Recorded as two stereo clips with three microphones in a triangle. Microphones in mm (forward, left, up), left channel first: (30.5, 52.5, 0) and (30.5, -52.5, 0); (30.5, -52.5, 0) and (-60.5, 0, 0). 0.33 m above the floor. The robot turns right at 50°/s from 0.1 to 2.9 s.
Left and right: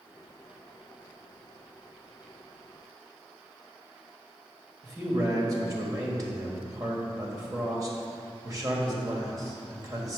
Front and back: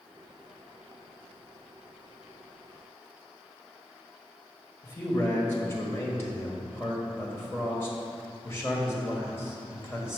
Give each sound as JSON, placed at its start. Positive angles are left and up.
{"t": 4.8, "sound": "a man speaking", "azimuth_deg": -75, "distance_m": 1.7}